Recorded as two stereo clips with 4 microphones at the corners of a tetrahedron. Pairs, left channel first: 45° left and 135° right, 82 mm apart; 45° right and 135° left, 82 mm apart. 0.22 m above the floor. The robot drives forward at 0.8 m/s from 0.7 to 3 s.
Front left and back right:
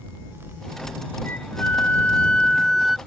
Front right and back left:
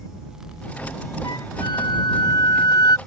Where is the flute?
20° right; by 3.0 s 50° right.